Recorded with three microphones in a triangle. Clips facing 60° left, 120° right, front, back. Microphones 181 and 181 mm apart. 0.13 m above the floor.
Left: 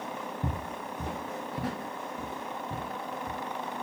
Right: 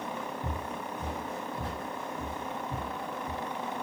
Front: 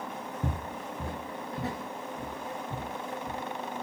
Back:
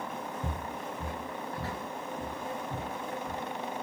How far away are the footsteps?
About 0.6 m.